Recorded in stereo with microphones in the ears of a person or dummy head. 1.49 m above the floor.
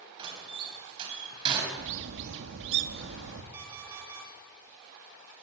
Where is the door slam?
30° right (ahead or behind), 6 m.